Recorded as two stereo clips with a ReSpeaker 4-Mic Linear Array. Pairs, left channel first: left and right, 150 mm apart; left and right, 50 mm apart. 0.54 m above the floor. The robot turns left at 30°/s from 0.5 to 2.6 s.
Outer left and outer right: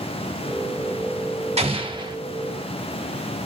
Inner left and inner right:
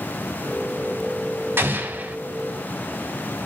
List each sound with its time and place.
1.6 s an explosion: 45° right (ahead or behind), 2.5 m; by 2.2 s 30° right (ahead or behind), 2.5 m